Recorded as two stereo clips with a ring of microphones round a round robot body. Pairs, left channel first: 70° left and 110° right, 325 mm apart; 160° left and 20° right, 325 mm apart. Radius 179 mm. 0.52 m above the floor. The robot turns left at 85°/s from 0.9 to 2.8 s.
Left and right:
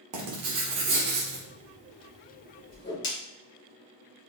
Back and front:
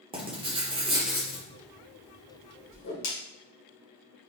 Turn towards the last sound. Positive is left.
turn(degrees=120)